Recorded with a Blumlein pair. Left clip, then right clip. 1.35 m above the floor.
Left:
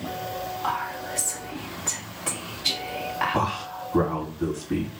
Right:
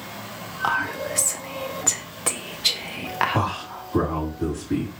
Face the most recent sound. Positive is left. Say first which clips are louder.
# even
turn(degrees=-5)